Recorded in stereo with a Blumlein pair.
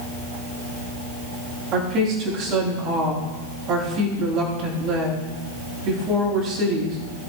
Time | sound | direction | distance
1.7 | a woman speaking | 35° right | 7 m